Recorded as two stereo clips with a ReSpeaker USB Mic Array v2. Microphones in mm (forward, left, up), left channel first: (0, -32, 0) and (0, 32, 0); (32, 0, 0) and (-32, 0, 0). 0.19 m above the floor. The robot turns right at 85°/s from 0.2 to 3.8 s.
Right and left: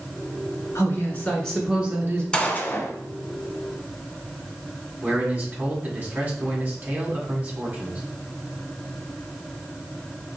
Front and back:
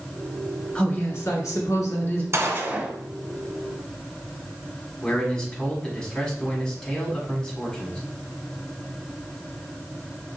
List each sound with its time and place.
0.8 s a woman speaking: 75° right, 2.0 m; by 2.2 s 50° left, 2.0 m
2.3 s a gunshot: 165° right, 1.1 m; by 2.9 s 115° right, 1.1 m
5.0 s a man speaking: 65° left, 1.8 m